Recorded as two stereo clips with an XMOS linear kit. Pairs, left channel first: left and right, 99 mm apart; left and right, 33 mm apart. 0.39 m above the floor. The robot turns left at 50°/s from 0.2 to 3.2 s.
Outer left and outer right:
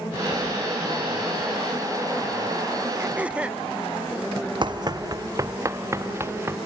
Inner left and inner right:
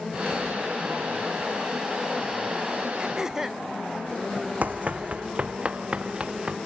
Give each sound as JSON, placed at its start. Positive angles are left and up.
{"t": 3.0, "sound": "throat clearing", "side_deg": -25}
{"t": 4.6, "sound": "running footsteps", "side_deg": -50}